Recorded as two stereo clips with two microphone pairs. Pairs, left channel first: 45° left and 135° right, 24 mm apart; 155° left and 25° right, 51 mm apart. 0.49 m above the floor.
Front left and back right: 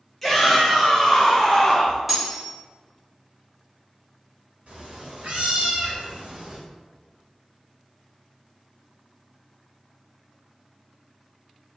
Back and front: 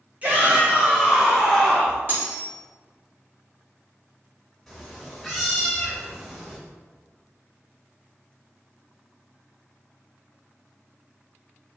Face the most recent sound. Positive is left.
turn(degrees=-115)